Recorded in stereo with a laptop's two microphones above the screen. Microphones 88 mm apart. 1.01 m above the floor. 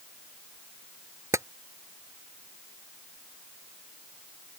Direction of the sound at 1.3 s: 35° right (ahead or behind).